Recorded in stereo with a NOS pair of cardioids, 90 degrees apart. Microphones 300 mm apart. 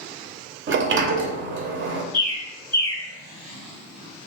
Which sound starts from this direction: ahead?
A bird, at 2.1 s.